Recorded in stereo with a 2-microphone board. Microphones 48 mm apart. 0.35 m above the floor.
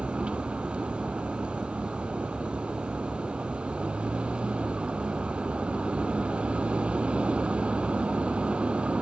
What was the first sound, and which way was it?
A vehicle, 25° right (ahead or behind).